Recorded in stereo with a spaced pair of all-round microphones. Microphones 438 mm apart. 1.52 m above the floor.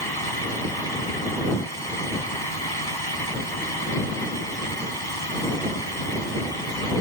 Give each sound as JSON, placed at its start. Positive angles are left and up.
{"t": 0.0, "sound": "a fan", "side_deg": 60}